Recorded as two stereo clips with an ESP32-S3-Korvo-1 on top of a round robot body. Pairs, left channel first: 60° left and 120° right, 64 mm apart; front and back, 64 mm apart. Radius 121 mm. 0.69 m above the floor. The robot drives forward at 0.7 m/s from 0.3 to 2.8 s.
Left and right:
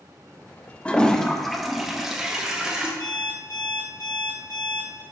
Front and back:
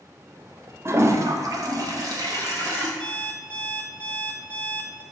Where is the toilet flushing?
130° left, 0.9 m; by 2.9 s 160° left, 2 m.